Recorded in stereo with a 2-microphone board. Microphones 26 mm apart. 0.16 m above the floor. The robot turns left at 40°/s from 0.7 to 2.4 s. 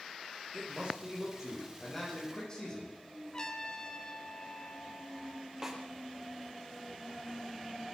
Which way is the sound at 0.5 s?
135° right.